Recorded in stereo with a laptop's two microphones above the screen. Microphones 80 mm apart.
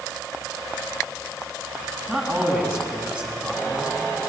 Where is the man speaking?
15° right (ahead or behind), 7 m.